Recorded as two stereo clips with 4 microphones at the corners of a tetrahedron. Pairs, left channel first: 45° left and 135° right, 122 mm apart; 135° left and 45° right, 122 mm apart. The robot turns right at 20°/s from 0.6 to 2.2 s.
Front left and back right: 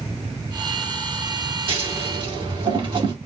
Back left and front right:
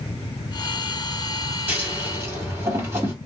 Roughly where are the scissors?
Behind right.